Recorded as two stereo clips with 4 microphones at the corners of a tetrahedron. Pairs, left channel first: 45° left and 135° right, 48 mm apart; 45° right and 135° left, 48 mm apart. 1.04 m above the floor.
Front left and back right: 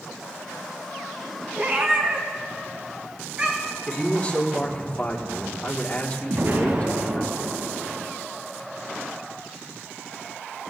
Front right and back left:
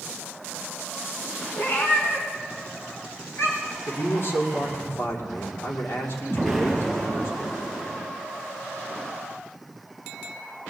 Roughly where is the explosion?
Behind right.